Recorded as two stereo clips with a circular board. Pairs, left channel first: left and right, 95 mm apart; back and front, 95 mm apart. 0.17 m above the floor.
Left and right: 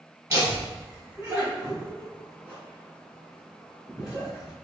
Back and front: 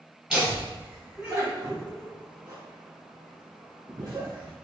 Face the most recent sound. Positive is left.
turn(degrees=45)